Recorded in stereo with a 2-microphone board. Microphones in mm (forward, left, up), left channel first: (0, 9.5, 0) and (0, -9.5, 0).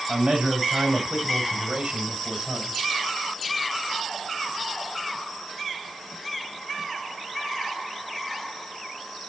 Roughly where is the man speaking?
Right.